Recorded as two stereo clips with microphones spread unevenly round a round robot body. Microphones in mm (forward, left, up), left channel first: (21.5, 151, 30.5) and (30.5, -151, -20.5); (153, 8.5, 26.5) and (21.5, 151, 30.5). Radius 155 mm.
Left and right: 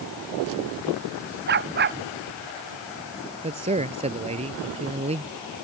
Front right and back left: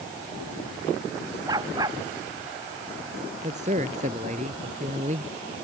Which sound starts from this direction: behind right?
A dog barking, at 1.5 s.